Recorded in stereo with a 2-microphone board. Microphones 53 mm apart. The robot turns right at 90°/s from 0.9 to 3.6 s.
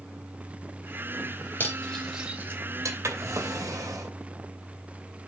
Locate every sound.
1.6 s cutlery clinking: 50° left (ahead or behind), 2.5 m; by 2.9 s 70° right (ahead or behind), 2.5 m
3.0 s a drawer: 130° right, 2.5 m; by 4.2 s 80° right, 2.5 m